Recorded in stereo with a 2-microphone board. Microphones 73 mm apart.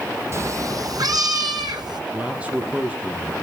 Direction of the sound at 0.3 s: 40° right (ahead or behind).